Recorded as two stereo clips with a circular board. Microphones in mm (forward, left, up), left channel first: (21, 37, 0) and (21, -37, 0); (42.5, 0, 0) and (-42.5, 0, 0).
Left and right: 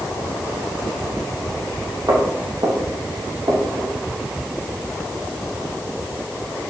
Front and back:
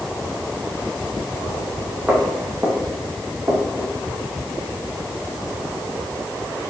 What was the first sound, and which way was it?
Footsteps, 105° right.